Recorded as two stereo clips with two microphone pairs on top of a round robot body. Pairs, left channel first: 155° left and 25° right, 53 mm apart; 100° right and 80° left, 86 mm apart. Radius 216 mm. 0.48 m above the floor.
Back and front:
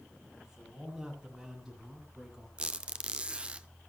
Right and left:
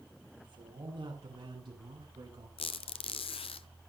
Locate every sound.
0.4 s a man speaking: 55° left, 8.5 m
2.6 s a squeak: 95° right, 0.6 m